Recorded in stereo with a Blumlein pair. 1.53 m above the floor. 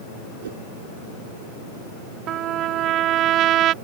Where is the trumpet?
35° right.